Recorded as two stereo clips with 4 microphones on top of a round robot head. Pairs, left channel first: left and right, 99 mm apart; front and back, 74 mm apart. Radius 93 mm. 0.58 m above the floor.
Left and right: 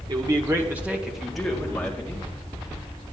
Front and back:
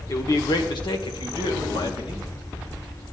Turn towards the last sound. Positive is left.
turn(degrees=15)